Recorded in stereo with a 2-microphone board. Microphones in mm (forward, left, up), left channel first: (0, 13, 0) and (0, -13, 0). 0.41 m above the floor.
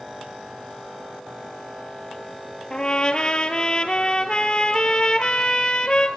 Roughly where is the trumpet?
Left.